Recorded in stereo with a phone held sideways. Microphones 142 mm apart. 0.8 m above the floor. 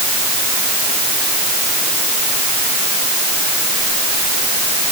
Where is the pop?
I don't hear a pop.